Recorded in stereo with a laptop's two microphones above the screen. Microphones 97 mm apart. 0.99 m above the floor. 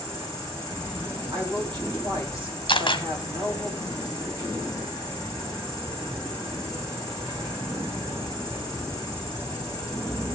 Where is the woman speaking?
50° right (ahead or behind), 5.5 m.